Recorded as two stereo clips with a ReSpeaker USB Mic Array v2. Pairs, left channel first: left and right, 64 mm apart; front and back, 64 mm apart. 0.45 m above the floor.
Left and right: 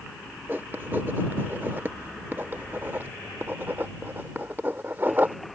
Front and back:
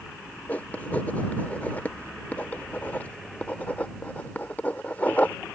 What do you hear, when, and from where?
0.5 s writing: 50° right